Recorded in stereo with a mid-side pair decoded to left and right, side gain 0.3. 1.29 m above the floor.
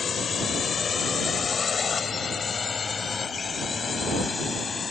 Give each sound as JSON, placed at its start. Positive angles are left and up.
{"t": 0.0, "sound": "a drone", "azimuth_deg": 70}